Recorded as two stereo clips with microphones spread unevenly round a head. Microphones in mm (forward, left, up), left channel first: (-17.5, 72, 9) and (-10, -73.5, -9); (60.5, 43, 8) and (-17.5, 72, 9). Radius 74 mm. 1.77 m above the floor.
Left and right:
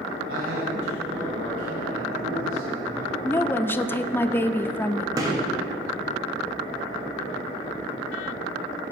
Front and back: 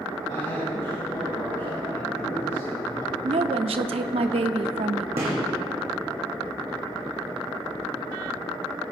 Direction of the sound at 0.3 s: 80° right.